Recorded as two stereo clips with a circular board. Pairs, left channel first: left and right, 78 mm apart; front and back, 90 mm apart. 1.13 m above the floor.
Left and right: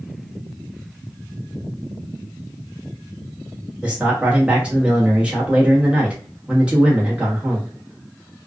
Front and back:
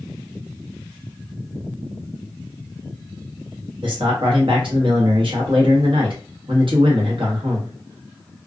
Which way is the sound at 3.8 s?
165° right.